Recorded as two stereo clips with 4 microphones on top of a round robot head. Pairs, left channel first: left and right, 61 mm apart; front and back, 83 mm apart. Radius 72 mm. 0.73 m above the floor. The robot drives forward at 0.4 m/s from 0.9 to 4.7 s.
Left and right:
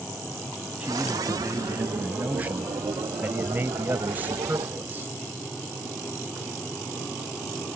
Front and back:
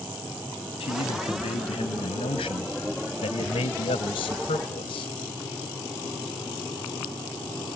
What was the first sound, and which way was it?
A man speaking, 15° right.